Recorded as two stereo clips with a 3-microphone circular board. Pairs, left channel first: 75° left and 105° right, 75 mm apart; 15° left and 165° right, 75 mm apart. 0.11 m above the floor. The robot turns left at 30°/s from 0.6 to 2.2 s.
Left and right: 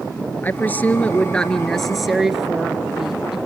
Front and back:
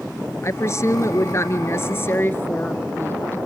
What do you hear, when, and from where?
0.4 s a woman speaking: 25° left, 1.5 m; by 3.4 s 20° right, 1.5 m